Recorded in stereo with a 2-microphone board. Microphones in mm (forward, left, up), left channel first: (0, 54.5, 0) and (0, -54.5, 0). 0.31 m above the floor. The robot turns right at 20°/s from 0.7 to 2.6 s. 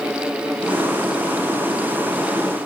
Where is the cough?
I don't hear a cough.